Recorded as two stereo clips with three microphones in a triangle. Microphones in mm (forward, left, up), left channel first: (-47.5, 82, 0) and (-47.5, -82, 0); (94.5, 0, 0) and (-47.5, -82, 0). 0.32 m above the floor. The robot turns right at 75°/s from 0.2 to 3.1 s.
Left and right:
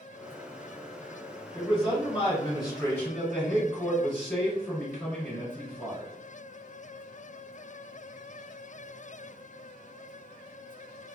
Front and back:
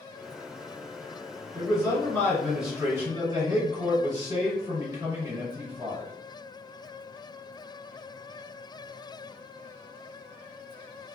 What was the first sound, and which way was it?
A man speaking, 45° left.